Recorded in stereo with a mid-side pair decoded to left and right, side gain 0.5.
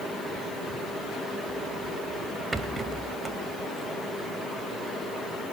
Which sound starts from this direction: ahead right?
A rattle, at 2.5 s.